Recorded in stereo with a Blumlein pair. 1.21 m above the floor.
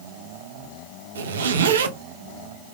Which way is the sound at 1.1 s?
65° right.